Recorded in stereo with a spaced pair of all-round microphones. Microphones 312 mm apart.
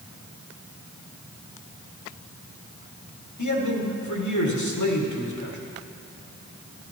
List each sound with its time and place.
3.4 s a man speaking: 70° left (ahead or behind), 1.8 m